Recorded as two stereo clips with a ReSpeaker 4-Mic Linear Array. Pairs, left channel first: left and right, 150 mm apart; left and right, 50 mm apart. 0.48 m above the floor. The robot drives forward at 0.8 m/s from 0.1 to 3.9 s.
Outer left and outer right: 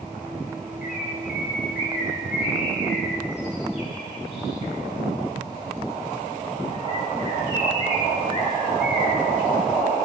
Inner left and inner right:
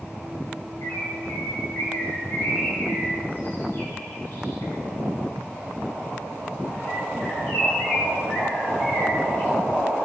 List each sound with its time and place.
0.8 s a bird: 65° left (ahead or behind), 2.5 m; by 9.5 s 40° left (ahead or behind), 3.5 m